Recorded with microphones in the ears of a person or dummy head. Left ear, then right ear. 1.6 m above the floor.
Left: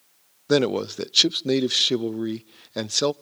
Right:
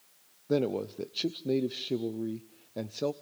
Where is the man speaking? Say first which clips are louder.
Left 8 dB; 55° left (ahead or behind), 0.6 m.